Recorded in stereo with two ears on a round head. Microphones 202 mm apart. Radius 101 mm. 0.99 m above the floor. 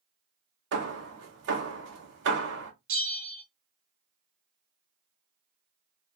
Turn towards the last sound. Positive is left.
turn(degrees=-60)  # may be behind; listen again after turning